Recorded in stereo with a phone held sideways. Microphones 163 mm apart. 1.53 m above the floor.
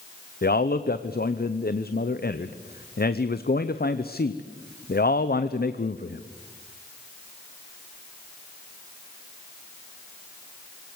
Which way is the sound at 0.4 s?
70° left (ahead or behind).